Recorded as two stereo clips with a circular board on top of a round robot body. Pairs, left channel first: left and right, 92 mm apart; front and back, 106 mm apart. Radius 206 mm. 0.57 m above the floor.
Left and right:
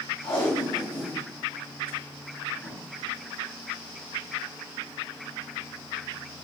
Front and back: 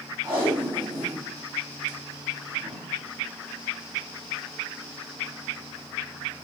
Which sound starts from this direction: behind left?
Tape being pulled, at 0.2 s.